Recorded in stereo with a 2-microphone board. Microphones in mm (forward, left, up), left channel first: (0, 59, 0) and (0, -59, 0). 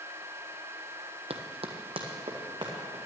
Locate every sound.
1.3 s running footsteps: 65° right (ahead or behind), 1.1 m; by 3.0 s 40° right (ahead or behind), 3.5 m